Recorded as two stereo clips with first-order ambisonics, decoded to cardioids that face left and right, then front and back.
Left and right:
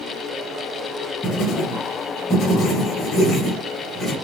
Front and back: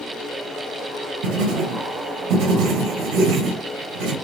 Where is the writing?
165° left, 4.5 m.